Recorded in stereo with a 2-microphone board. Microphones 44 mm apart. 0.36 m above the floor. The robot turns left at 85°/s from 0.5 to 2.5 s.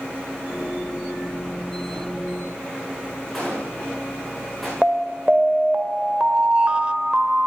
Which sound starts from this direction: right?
An alarm, at 4.8 s.